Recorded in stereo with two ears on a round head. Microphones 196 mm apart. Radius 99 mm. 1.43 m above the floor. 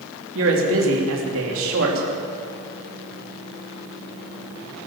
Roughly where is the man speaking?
Right.